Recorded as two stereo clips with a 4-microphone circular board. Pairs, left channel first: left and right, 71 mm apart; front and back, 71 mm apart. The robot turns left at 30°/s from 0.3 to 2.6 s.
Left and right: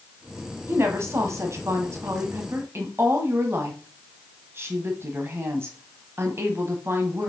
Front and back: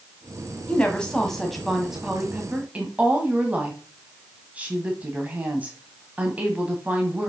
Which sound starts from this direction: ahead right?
A woman speaking, at 0.7 s.